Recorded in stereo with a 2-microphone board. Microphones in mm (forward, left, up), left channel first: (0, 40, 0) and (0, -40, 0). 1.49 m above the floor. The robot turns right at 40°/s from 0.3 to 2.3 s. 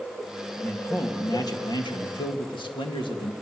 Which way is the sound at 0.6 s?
20° left.